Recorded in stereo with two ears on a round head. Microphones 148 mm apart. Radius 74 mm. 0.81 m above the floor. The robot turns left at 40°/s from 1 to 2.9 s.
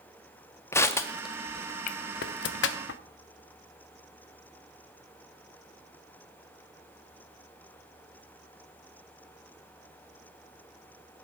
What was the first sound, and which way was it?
Crushing, 15° left (ahead or behind).